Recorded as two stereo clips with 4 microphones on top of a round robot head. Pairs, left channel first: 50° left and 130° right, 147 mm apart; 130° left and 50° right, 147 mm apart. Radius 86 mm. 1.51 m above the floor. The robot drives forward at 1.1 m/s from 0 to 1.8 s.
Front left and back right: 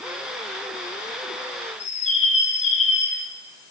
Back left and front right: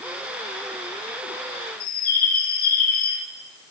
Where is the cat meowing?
No cat meowing in this recording.